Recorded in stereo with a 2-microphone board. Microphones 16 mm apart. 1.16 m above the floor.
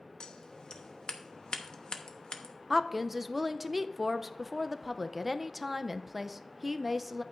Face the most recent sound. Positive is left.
turn(degrees=-10)  # may be behind; listen again after turning